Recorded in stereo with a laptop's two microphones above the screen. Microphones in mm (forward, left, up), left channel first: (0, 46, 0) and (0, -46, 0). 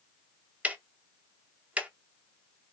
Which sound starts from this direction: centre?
Ticking, at 0.6 s.